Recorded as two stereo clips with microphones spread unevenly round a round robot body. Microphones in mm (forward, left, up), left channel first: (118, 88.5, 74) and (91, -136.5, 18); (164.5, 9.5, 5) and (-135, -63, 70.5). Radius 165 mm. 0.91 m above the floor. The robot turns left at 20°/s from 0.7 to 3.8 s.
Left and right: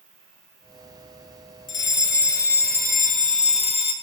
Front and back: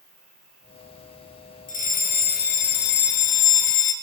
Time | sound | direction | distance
0.0 | an insect | 90° right | 5.5 m
1.7 | a fire alarm | 55° left | 2.0 m